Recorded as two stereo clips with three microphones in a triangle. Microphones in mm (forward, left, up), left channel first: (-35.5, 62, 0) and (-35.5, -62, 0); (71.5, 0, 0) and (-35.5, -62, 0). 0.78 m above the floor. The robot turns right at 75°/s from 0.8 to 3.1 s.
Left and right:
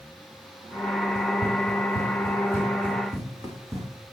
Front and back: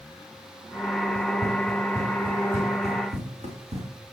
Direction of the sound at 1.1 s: 70° left.